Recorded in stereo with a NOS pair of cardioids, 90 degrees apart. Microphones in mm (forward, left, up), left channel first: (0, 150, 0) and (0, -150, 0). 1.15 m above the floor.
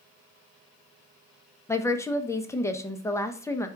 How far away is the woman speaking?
About 0.7 m.